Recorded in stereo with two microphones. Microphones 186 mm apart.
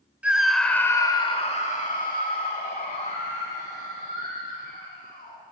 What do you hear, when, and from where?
0.2 s a scream: 5° right (ahead or behind), 0.9 m; by 5.4 s 50° left (ahead or behind), 3 m